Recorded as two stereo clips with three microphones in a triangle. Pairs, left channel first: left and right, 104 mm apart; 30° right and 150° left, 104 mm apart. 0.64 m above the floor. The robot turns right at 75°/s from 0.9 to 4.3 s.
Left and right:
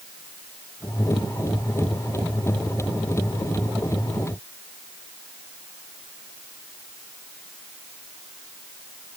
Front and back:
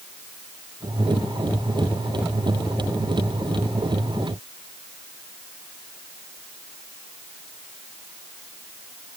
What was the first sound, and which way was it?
Only background noise.